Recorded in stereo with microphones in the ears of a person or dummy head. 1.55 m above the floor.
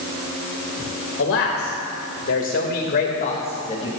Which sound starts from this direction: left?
A man speaking, at 1.2 s.